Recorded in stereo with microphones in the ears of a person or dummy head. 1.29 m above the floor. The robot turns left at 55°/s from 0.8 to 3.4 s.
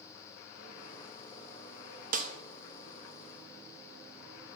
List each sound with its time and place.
2.1 s a snare drum: 45° right (ahead or behind), 0.8 m; by 2.3 s 35° right (ahead or behind), 0.8 m